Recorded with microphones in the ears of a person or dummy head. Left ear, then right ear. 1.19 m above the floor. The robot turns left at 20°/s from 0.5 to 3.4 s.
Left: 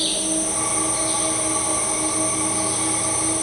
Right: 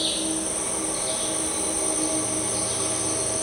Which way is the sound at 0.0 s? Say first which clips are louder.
Left 3 dB; straight ahead.